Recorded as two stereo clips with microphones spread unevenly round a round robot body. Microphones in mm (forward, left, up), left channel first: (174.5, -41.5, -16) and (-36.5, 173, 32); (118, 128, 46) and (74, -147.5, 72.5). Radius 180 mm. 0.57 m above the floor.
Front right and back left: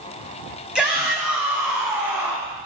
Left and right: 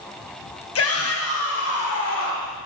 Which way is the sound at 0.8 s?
45° left.